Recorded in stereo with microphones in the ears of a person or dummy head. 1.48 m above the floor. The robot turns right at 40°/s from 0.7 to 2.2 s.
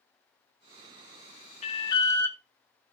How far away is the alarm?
About 0.9 m.